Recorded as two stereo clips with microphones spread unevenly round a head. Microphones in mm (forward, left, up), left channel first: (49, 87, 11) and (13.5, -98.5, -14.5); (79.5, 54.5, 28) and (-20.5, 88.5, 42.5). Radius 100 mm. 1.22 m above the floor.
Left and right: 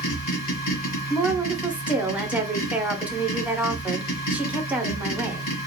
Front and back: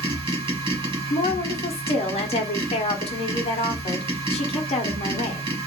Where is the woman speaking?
20° right, 0.7 m.